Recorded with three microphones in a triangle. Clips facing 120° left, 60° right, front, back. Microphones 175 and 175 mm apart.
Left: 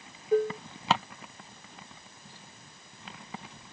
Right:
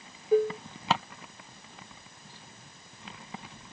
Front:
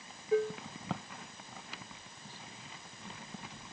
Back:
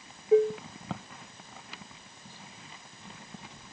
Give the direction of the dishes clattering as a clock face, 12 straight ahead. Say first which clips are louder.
Right 2 dB, back 8 dB; 5 o'clock.